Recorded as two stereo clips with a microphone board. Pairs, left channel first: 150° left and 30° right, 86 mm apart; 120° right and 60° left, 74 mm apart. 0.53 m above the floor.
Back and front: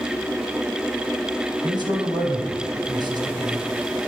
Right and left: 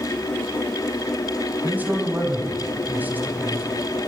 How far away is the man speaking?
About 3.5 m.